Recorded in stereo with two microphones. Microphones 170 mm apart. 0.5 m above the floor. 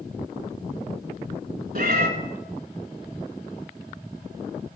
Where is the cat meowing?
55° right (ahead or behind), 1.1 m.